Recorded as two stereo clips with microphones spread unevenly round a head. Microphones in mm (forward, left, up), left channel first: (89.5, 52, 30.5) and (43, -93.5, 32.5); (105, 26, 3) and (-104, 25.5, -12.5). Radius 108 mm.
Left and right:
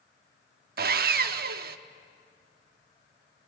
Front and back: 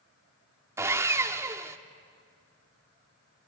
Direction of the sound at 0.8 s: 100° right.